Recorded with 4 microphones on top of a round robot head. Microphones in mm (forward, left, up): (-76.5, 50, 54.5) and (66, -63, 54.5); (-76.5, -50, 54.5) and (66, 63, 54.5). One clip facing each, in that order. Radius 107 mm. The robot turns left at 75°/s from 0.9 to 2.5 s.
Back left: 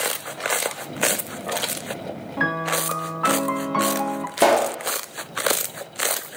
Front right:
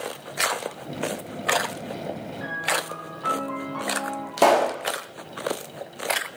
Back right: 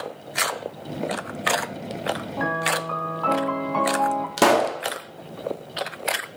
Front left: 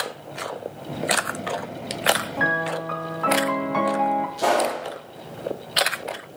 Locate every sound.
2.4 s a piano: 125° left, 0.6 m; by 4.3 s 120° left, 0.6 m
4.4 s a pop: 130° right, 1.2 m